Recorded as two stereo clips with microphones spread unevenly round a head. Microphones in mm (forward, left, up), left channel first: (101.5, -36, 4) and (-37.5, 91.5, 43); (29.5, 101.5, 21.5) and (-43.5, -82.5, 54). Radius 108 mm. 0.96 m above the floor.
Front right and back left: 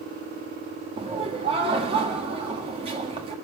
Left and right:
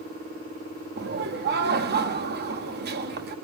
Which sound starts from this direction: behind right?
Laughter, at 1.0 s.